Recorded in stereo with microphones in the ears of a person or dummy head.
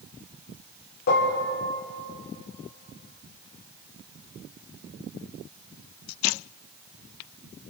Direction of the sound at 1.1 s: 55° left (ahead or behind).